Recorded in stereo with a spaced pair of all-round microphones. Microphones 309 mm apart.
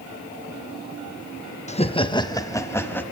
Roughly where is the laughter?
Left.